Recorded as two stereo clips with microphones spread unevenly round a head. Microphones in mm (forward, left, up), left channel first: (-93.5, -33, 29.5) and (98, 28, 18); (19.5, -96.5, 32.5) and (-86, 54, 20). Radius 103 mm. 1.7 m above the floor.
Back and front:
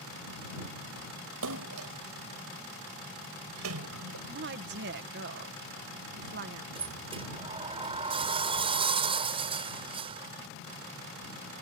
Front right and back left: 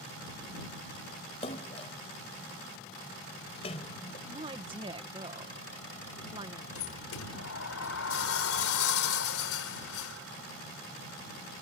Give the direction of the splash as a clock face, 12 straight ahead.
12 o'clock.